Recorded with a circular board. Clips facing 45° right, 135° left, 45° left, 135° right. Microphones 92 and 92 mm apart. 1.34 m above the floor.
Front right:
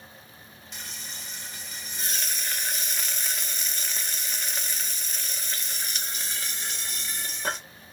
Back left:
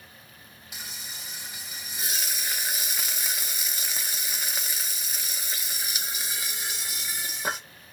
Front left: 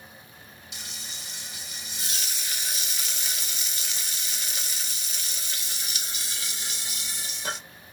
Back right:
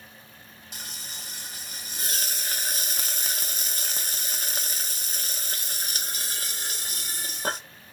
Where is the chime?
No chime in this recording.